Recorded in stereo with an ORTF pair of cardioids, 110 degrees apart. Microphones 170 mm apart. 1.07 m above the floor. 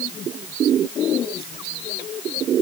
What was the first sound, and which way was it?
Only background noise.